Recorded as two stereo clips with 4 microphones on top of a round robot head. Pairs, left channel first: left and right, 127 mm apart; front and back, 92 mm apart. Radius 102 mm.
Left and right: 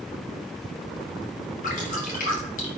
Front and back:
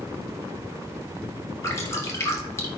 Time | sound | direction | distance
1.6 | dripping | 60° left | 3 m